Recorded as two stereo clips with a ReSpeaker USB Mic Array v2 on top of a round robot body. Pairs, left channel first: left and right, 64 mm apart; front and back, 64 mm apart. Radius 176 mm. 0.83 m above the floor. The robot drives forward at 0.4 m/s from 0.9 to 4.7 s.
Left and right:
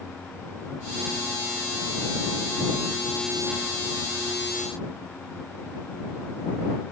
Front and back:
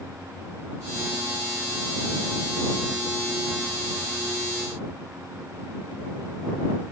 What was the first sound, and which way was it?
Only background noise.